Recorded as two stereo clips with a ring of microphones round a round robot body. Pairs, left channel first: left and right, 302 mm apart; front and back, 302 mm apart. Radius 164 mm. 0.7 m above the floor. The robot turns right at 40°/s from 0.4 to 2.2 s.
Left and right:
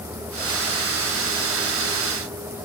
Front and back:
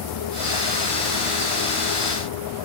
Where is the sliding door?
No sliding door in this recording.